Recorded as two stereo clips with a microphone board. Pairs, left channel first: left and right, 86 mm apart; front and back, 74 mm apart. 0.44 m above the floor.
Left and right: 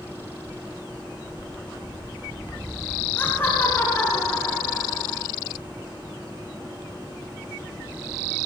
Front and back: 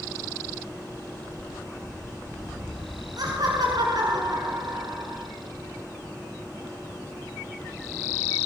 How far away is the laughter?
About 5.5 m.